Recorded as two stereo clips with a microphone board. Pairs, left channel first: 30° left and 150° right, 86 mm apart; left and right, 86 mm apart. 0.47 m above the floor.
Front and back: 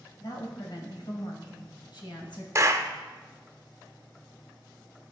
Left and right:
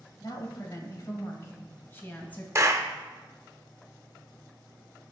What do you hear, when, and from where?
0.2 s a woman speaking: 55° left, 2 m; by 2.5 s 20° left, 2.5 m
2.5 s a clap: 120° right, 0.8 m